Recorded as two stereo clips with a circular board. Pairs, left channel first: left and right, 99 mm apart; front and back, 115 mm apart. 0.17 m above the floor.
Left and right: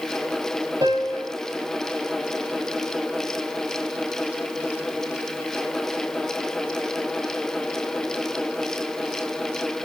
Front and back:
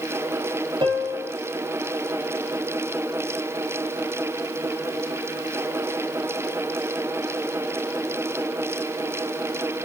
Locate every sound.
0.8 s a piano: 135° right, 5.5 m